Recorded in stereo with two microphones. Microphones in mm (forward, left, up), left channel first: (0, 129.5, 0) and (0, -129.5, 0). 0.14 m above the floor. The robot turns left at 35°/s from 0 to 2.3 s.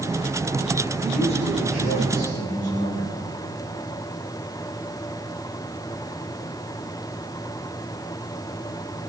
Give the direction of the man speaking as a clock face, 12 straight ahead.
7 o'clock.